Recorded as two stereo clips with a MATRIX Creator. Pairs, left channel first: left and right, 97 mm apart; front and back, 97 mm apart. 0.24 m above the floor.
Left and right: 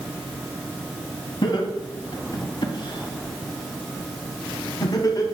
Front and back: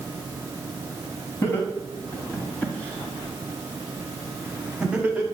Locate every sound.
1.4 s laughter: 60° left, 3 m; by 5.2 s 115° left, 2 m